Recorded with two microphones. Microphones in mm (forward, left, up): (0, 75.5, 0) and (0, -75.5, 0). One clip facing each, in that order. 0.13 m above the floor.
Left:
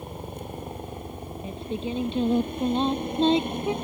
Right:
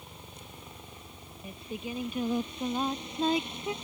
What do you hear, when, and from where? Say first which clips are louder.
0.0 s a helicopter: left 13 dB; 55° left (ahead or behind)
1.4 s singing: left 7 dB; 30° left (ahead or behind)